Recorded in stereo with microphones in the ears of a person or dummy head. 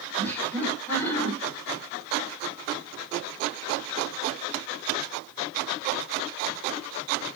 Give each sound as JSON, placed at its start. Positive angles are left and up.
{"t": 0.2, "sound": "laughter", "side_deg": 10, "distance_m": 7.0}